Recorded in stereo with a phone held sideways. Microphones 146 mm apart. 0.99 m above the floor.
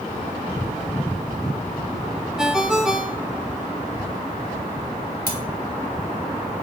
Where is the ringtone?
5° right (ahead or behind), 1.2 m.